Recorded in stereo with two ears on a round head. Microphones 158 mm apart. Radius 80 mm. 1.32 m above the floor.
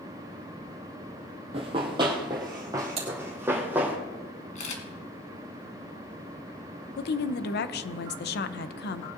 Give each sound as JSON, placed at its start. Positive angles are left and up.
{"t": 1.5, "sound": "running footsteps", "side_deg": -30, "distance_m": 2.0}
{"t": 3.0, "sound": "typing on a keyboard", "side_deg": -35, "distance_m": 2.5}
{"t": 4.5, "sound": "a camera shutter", "side_deg": 40, "distance_m": 2.0}
{"t": 7.0, "sound": "a woman speaking", "side_deg": 65, "distance_m": 0.7}